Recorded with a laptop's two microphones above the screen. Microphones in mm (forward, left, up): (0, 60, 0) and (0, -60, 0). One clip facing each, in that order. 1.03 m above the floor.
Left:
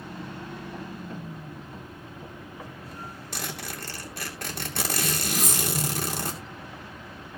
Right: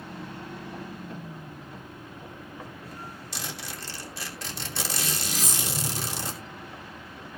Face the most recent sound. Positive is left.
turn(degrees=55)  # may be behind; listen again after turning